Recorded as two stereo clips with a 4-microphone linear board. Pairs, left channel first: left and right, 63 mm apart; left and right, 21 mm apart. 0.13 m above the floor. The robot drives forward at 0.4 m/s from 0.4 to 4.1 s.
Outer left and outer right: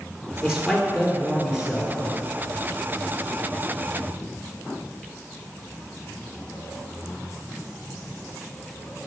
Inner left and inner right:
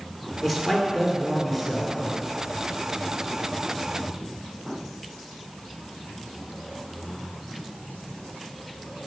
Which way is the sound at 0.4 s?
10° right (ahead or behind).